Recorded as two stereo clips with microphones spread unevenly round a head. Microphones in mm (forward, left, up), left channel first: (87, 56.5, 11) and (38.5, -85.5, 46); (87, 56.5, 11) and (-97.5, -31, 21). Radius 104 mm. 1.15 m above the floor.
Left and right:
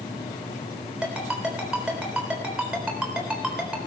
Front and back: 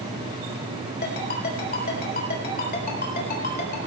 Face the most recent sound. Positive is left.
turn(degrees=-25)